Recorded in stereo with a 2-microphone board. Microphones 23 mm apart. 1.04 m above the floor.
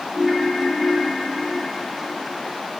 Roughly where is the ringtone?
Centre.